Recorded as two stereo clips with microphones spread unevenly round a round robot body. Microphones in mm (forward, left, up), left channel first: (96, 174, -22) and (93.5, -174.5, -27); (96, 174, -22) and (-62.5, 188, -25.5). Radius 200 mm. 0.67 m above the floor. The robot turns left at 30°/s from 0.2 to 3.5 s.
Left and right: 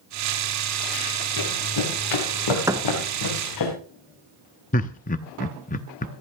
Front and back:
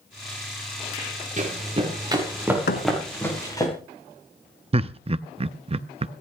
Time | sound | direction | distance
1.4 | running footsteps | 135° left | 5.5 m
2.7 | a thud | 10° right | 1.3 m
4.7 | laughter | 150° left | 0.6 m